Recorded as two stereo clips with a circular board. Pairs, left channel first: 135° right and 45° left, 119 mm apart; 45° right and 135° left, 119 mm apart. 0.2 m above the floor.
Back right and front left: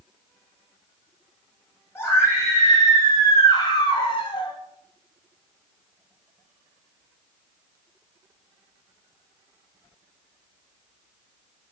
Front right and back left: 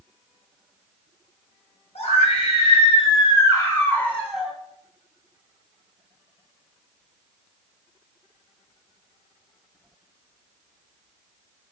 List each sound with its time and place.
1.9 s a scream: 65° right, 3 m; by 4.5 s 145° right, 1.8 m